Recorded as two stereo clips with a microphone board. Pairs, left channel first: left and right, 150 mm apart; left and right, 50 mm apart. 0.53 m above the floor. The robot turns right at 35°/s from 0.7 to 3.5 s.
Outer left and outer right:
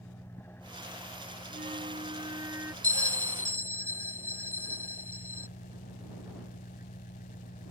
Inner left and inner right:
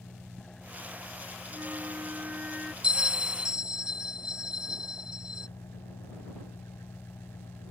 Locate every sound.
0.0 s an engine running: 15° left; by 7.7 s 110° left
1.5 s a flute: 60° right; by 2.7 s 15° right
2.8 s a bell: 20° right (ahead or behind)